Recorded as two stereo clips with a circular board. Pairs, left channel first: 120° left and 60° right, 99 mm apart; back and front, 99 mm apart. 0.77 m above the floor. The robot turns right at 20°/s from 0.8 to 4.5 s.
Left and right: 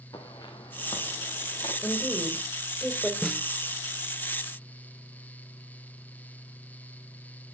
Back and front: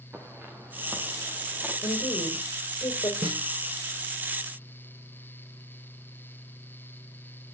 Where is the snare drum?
30° left, 1.6 m; by 3.4 s 35° left, 1.6 m.